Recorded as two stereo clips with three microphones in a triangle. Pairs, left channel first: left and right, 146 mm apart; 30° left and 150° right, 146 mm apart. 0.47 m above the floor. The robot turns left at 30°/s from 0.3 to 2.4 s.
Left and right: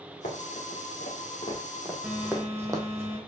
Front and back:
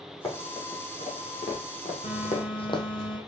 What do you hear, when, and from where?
0.2 s running footsteps: 90° left, 3 m; by 2.8 s 30° right, 1.1 m
2.0 s a phone buzzing: 5° right, 1.1 m; by 3.2 s 15° right, 1.1 m